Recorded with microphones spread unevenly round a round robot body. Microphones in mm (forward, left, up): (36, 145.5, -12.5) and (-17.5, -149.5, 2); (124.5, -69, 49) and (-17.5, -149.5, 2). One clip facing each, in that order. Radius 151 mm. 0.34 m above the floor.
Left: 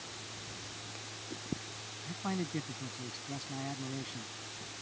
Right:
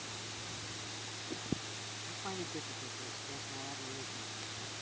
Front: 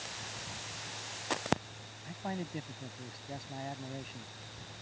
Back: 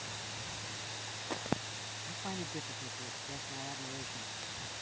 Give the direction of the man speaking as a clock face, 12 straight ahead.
9 o'clock.